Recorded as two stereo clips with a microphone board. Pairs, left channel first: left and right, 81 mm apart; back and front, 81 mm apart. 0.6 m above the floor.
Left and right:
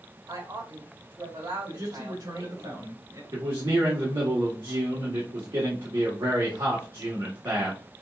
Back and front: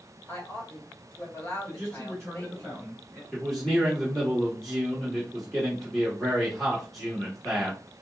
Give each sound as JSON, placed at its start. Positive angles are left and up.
{"t": 0.3, "sound": "a woman speaking", "azimuth_deg": -125, "distance_m": 2.0}
{"t": 1.7, "sound": "a man speaking", "azimuth_deg": -100, "distance_m": 2.5}
{"t": 3.3, "sound": "a man speaking", "azimuth_deg": -95, "distance_m": 1.2}